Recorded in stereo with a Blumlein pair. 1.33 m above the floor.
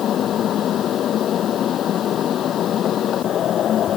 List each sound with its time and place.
0.0 s a fan: 30° left